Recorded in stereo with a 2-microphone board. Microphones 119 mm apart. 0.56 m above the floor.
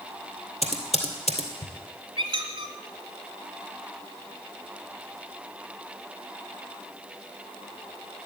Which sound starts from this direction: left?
Typing on a keyboard, at 0.6 s.